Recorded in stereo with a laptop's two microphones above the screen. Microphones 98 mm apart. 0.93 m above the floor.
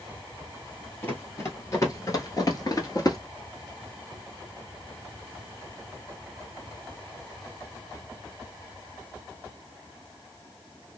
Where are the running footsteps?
25° left (ahead or behind), 1.4 m; by 3.2 s 40° left (ahead or behind), 1.1 m.